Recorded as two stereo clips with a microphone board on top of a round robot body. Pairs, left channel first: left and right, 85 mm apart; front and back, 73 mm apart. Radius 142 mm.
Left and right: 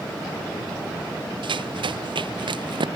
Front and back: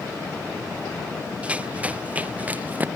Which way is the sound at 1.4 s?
110° right.